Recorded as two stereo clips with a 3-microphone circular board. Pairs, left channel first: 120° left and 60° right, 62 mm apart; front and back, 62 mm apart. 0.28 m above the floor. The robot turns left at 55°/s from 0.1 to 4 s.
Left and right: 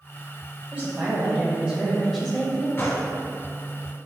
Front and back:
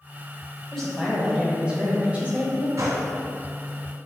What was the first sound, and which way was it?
A woman speaking, 100° right.